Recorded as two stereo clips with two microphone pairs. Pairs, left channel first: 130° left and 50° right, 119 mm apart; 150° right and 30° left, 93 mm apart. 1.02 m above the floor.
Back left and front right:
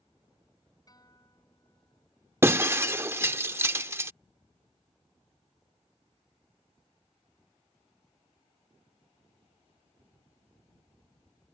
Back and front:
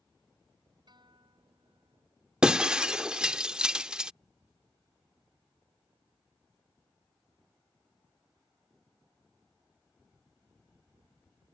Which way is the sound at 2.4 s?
30° right.